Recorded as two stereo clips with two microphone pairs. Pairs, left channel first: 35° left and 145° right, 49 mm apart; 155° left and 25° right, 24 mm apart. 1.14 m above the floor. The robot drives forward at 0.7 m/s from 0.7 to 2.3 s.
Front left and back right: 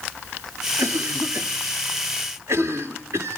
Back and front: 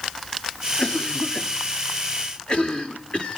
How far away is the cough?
About 1.6 m.